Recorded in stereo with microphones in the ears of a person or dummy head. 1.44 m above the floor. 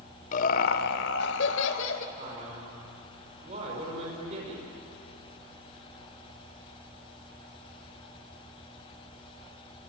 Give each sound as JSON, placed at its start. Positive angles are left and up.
{"t": 0.3, "sound": "laughter", "side_deg": 45, "distance_m": 1.1}
{"t": 2.1, "sound": "a man speaking", "side_deg": -40, "distance_m": 5.0}